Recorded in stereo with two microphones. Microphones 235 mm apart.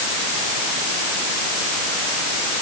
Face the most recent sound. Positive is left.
No sound to turn to.